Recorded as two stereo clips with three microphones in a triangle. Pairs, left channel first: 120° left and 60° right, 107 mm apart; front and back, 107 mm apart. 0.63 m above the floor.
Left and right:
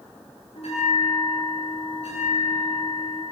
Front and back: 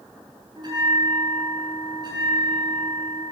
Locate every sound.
0.6 s a bell: 135° left, 9.5 m